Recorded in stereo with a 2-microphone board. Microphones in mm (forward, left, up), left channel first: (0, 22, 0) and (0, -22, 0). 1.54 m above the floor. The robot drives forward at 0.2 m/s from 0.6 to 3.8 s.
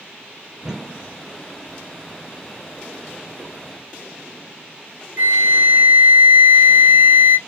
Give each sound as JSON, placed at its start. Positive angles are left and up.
{"t": 0.6, "sound": "a whoosh", "side_deg": -10, "distance_m": 0.8}
{"t": 3.4, "sound": "a whoosh", "side_deg": -40, "distance_m": 1.7}
{"t": 5.2, "sound": "a flute", "side_deg": -45, "distance_m": 0.6}